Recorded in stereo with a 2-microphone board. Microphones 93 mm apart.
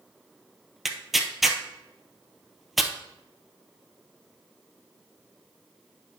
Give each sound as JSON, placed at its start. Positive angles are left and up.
{"t": 0.8, "sound": "tearing paper", "side_deg": 0, "distance_m": 0.8}